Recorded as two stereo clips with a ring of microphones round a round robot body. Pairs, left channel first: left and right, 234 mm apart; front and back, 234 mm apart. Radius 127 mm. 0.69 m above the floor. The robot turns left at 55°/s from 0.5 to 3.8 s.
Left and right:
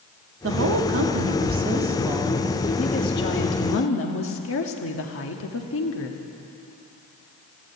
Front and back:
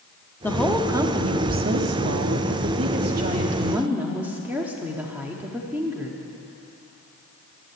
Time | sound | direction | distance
0.4 | a woman speaking | 80° right | 1.3 m